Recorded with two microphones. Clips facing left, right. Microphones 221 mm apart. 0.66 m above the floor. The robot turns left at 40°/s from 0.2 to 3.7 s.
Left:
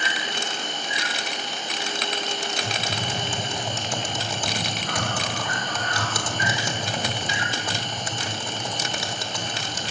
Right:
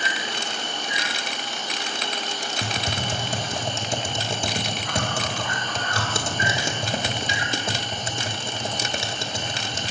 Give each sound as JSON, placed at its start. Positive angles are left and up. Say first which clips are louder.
{"t": 0.0, "sound": "an insect", "louder": "even", "azimuth_deg": -80, "distance_m": 5.5}
{"t": 2.6, "sound": "typing on a keyboard", "louder": "right 1 dB", "side_deg": -65, "distance_m": 1.2}